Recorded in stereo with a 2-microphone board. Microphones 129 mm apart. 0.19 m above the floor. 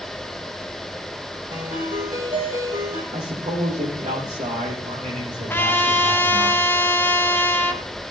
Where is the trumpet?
15° left (ahead or behind), 1.3 m.